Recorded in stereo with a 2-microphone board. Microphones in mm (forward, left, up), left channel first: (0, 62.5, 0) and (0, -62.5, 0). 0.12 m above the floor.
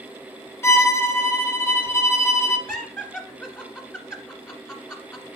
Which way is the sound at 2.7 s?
20° left (ahead or behind).